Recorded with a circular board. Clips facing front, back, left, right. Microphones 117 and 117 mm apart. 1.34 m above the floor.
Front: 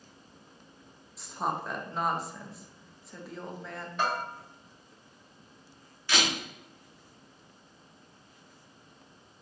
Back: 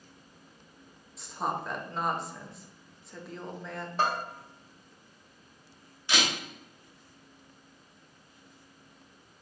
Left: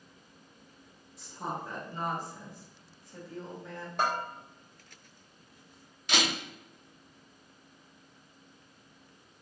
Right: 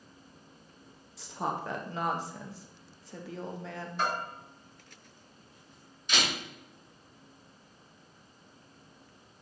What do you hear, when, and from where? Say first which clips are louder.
1.2 s a woman speaking: even, right 4 dB; 90° right, 0.7 m
4.0 s a bell: back 1 dB, left 2 dB; 125° left, 1.3 m
6.1 s a camera shutter: even, left 2 dB; 110° left, 2 m